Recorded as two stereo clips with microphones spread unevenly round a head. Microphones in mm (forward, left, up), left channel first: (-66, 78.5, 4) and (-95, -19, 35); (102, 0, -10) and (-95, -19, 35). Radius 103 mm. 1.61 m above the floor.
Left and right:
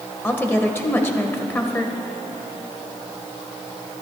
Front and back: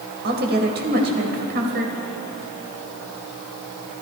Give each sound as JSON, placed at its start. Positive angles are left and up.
{"t": 0.2, "sound": "a woman speaking", "azimuth_deg": 140, "distance_m": 1.8}